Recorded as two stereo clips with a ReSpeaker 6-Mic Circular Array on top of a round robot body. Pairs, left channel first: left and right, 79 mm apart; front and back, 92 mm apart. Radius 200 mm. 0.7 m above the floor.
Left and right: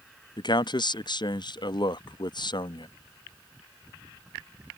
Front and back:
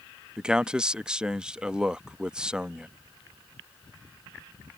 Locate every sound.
0.4 s a man speaking: 100° left